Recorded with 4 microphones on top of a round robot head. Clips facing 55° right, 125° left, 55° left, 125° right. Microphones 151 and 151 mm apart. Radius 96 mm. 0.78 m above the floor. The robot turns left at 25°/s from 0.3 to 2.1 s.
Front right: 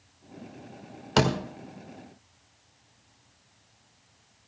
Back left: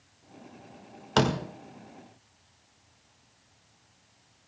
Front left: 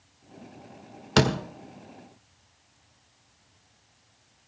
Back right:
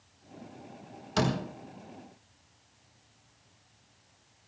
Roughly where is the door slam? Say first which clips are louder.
Front right 1 dB, front left 6 dB; ahead left.